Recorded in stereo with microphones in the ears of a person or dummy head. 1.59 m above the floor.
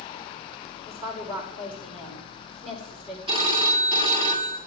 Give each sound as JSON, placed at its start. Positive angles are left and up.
{"t": 0.9, "sound": "a woman speaking", "side_deg": -30, "distance_m": 6.0}
{"t": 3.3, "sound": "a phone ringing", "side_deg": -30, "distance_m": 1.3}